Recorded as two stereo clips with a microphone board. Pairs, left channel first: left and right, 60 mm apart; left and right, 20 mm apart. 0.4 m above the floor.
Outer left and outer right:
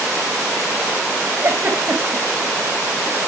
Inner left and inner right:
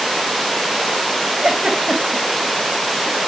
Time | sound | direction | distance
1.4 | a giggle | 45° right (ahead or behind) | 2.5 m